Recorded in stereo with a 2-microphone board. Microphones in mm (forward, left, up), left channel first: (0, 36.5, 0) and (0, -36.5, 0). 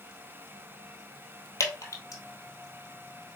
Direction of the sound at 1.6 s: 50° left (ahead or behind).